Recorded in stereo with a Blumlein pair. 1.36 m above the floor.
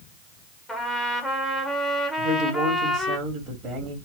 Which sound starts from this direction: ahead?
A trumpet, at 0.7 s.